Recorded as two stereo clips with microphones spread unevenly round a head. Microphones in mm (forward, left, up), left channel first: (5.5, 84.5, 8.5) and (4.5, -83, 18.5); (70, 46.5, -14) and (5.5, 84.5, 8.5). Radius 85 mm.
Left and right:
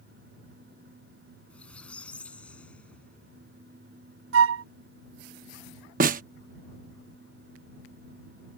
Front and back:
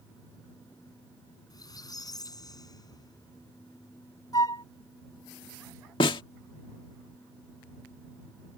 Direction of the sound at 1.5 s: 5° left.